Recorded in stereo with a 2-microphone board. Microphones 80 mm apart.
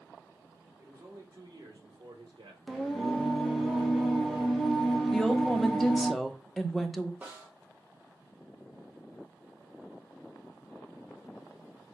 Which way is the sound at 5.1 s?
5° left (ahead or behind).